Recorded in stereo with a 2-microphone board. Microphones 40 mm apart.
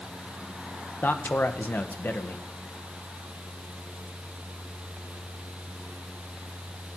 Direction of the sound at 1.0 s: 55° left (ahead or behind).